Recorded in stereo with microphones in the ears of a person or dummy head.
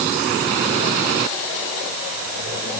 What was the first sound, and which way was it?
Only background noise.